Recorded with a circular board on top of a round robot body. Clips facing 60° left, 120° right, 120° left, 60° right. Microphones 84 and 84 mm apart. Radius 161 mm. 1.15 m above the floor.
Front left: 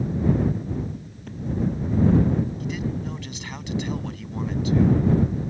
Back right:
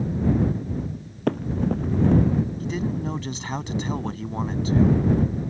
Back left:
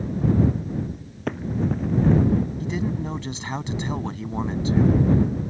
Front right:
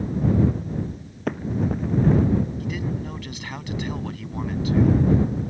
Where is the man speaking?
175° right.